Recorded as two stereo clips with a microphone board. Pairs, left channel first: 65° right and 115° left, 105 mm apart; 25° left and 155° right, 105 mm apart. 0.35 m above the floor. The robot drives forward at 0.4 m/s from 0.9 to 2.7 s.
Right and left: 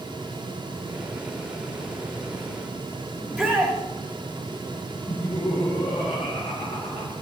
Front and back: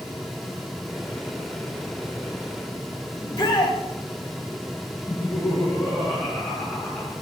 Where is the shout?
20° left, 1.6 m.